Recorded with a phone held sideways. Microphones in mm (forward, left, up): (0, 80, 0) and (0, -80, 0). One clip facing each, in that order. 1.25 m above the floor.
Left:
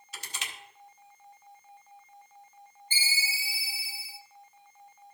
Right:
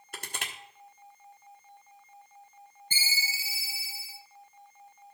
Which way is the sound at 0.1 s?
55° right (ahead or behind).